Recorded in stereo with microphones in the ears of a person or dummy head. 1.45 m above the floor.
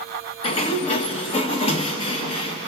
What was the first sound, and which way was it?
A sliding door, 35° left (ahead or behind).